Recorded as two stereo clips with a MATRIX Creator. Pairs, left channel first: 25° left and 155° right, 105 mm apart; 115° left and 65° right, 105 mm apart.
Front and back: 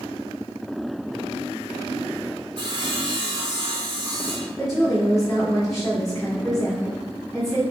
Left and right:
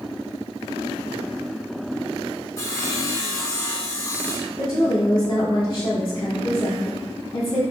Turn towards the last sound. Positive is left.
turn(degrees=110)